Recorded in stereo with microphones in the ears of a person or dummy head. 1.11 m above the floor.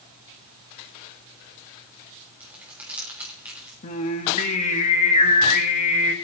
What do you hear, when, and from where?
2.4 s crumpling: 10° right (ahead or behind), 3.5 m
3.8 s singing: 40° left (ahead or behind), 1.1 m